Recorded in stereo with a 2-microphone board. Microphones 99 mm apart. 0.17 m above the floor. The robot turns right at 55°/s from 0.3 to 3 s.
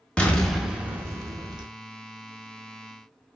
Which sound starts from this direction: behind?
An explosion, at 0.2 s.